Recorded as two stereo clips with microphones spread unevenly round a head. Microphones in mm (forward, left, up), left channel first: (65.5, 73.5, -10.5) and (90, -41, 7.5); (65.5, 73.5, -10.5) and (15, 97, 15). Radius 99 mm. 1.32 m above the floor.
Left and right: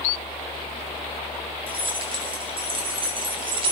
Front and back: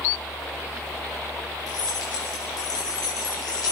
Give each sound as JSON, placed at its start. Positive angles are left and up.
{"t": 1.7, "sound": "keys jangling", "azimuth_deg": -40, "distance_m": 7.0}